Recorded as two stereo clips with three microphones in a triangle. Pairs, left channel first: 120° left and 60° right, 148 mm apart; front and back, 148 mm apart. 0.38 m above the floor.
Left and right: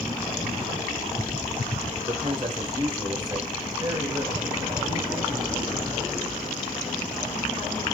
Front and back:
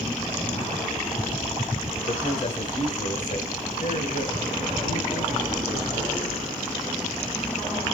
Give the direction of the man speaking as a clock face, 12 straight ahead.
1 o'clock.